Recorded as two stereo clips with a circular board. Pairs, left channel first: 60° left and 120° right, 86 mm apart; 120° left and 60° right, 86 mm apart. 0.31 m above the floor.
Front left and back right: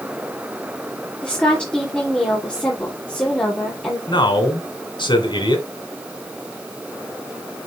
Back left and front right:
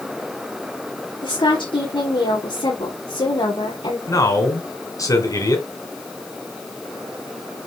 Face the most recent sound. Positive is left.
turn(degrees=80)